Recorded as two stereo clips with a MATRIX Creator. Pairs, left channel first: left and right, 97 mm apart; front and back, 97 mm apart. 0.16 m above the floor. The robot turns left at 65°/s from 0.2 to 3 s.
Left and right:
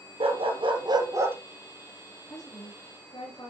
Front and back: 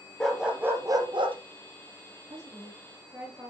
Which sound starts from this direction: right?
A dog barking, at 0.2 s.